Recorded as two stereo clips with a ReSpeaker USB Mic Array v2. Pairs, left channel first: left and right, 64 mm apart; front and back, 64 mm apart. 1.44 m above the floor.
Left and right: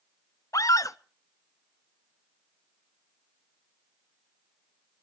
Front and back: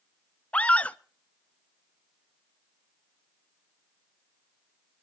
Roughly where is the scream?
Left.